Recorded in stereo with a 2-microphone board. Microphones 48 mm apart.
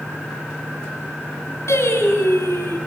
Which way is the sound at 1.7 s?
70° left (ahead or behind).